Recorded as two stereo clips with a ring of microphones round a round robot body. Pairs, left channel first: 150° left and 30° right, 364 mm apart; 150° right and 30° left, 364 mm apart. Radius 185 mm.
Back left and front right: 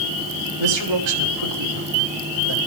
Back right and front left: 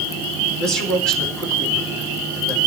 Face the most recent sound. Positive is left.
turn(degrees=-60)